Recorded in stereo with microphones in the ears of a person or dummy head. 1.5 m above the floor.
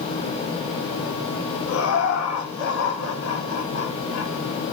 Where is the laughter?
70° left (ahead or behind), 3 m; by 4.3 s 65° left (ahead or behind), 4.5 m.